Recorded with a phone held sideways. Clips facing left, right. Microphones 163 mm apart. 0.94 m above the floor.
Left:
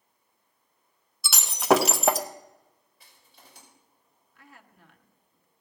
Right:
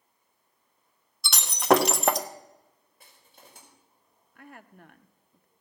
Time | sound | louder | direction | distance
1.2 | breaking glass | even | 5° left (ahead or behind) | 0.7 m
3.0 | crushing | right 2 dB | 50° right (ahead or behind) | 4.5 m
4.3 | a woman speaking | right 7 dB | 55° right (ahead or behind) | 0.7 m